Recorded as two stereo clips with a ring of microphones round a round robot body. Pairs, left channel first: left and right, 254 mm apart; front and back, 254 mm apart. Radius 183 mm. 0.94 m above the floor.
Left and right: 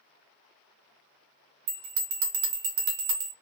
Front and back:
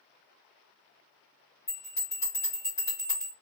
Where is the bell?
70° right, 1.0 m.